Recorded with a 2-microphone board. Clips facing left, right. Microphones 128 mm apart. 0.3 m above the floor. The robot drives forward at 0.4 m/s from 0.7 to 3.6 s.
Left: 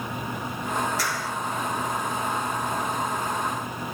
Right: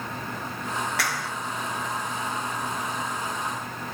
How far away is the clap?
About 3 m.